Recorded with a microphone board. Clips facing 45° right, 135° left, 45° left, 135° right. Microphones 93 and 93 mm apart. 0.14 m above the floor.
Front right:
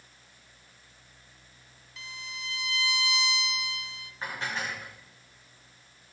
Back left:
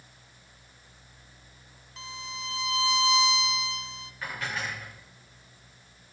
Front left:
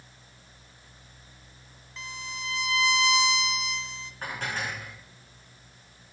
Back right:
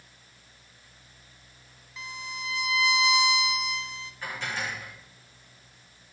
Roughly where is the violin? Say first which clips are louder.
Back left 4 dB, back right 1 dB; behind left.